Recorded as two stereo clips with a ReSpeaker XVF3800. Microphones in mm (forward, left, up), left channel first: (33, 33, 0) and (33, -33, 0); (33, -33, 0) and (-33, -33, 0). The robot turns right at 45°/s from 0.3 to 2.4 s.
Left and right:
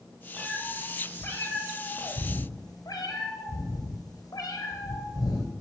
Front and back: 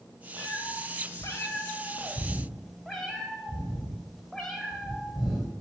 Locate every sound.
0.4 s a cat meowing: 5° right, 2.5 m; by 5.5 s 85° left, 2.5 m